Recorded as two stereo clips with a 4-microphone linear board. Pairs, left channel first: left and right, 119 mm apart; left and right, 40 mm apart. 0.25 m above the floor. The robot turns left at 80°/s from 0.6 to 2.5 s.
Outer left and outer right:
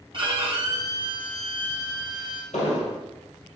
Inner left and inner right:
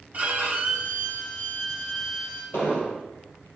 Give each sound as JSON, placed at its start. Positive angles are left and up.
{"t": 0.1, "sound": "a violin", "azimuth_deg": -120, "distance_m": 1.3}
{"t": 2.5, "sound": "an explosion", "side_deg": 80, "distance_m": 2.0}